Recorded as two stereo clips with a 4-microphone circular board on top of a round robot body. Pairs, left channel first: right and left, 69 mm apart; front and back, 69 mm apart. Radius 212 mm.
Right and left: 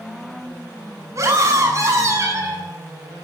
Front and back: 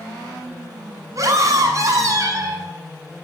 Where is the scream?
135° left, 7 m.